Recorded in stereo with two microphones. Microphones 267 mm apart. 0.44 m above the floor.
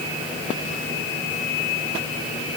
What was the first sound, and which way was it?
Only background noise.